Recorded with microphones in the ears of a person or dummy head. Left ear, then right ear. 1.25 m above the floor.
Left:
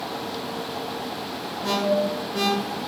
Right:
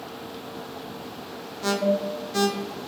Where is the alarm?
70° right (ahead or behind), 1.9 m.